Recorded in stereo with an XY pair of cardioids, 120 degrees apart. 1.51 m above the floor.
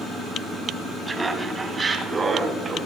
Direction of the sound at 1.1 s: 15° right.